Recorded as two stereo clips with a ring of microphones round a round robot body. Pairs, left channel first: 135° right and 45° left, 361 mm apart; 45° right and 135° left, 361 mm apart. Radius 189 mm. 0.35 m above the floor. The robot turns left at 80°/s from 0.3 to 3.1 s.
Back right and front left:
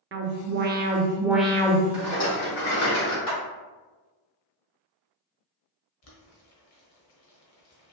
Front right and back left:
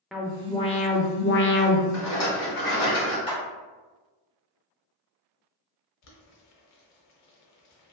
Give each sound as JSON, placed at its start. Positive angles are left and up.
{"t": 0.1, "sound": "an alarm", "azimuth_deg": 45, "distance_m": 0.6}
{"t": 1.9, "sound": "a rattle", "azimuth_deg": -40, "distance_m": 1.7}
{"t": 3.3, "sound": "a clap", "azimuth_deg": -120, "distance_m": 1.9}
{"t": 6.0, "sound": "boiling", "azimuth_deg": -85, "distance_m": 1.0}